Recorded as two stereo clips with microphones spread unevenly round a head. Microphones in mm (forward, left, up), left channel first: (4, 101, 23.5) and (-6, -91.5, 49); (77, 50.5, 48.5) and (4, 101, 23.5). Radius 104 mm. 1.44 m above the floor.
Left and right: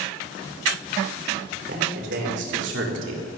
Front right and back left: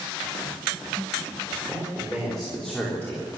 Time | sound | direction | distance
1.7 | a man speaking | 130° right | 4.5 m